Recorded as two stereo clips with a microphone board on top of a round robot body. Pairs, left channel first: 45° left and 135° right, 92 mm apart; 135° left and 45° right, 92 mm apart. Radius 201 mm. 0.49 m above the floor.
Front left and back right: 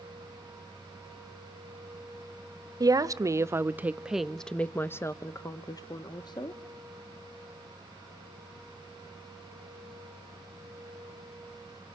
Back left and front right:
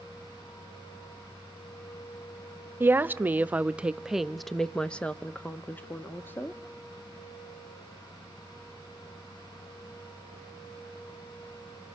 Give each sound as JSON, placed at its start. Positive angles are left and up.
{"t": 2.8, "sound": "a woman speaking", "azimuth_deg": -105, "distance_m": 1.1}